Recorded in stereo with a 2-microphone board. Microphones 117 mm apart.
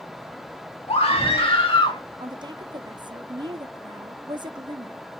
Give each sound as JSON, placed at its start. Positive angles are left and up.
{"t": 0.9, "sound": "a scream", "side_deg": 55, "distance_m": 2.5}
{"t": 2.2, "sound": "a woman speaking", "side_deg": -40, "distance_m": 0.6}